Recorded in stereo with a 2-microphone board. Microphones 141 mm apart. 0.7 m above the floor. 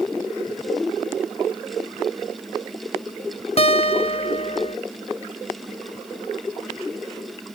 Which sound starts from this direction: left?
A guitar, at 3.6 s.